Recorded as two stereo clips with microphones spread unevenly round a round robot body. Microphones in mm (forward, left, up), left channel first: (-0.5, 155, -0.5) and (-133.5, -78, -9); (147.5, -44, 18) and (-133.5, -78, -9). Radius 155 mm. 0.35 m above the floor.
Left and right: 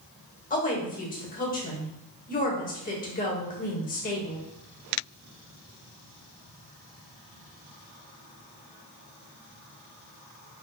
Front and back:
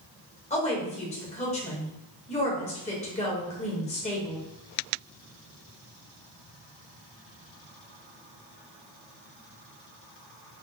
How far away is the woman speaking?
About 1.3 m.